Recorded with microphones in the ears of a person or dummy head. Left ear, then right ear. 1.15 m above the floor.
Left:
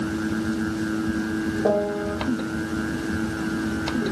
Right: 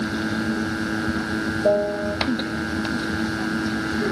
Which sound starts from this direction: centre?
A piano, at 1.6 s.